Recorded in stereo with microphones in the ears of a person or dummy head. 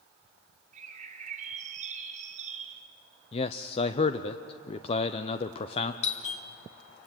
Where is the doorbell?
45° left (ahead or behind), 2 m.